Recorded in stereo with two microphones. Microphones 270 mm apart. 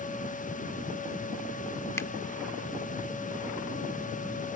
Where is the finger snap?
10° left (ahead or behind).